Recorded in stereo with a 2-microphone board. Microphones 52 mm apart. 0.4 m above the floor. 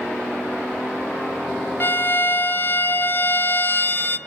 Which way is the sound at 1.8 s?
45° left (ahead or behind).